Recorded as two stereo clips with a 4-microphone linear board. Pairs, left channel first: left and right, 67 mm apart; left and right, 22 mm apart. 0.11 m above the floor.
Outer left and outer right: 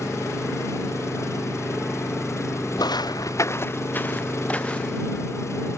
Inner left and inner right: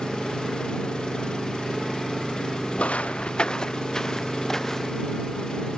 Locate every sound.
0.0 s an engine running: 45° left (ahead or behind)
2.8 s footsteps: 75° left (ahead or behind); by 5.1 s 15° left (ahead or behind)